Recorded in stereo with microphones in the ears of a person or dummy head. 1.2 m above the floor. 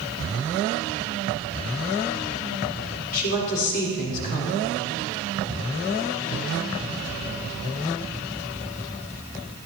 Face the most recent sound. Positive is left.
turn(degrees=60)  # may be behind; listen again after turning